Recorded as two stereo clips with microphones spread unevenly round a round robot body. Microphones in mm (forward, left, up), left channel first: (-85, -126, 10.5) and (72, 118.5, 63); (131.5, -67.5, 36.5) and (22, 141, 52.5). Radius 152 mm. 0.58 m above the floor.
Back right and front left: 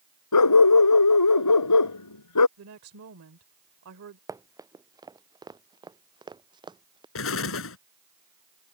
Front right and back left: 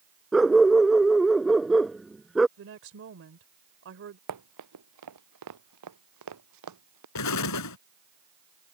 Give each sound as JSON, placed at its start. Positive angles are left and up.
{"t": 0.3, "sound": "a dog barking", "azimuth_deg": -155}
{"t": 2.6, "sound": "a woman speaking", "azimuth_deg": 95}
{"t": 4.3, "sound": "running footsteps", "azimuth_deg": 135}
{"t": 7.2, "sound": "an explosion", "azimuth_deg": -75}